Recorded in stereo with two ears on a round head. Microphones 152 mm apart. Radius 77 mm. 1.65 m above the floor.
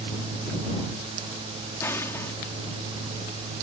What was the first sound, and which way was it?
An explosion, 15° left (ahead or behind).